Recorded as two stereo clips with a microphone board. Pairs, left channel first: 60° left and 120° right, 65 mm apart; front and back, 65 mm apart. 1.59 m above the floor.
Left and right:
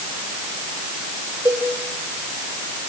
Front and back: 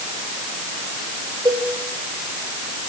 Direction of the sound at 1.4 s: 165° right.